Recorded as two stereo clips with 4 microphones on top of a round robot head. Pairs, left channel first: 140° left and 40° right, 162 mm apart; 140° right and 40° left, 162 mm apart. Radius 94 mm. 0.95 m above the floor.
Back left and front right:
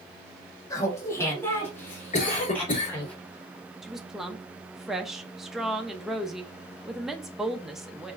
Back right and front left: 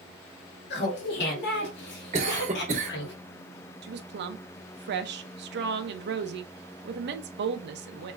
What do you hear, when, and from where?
0.7 s laughter: 150° right, 1.8 m; by 3.1 s 140° right, 3.5 m
2.1 s a cough: 90° left, 3 m
3.8 s a woman speaking: 45° left, 0.7 m